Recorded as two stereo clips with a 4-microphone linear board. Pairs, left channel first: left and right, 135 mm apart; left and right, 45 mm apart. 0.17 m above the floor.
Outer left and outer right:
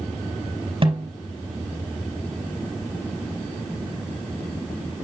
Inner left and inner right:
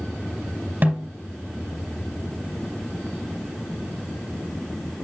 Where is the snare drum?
40° right (ahead or behind), 4 m.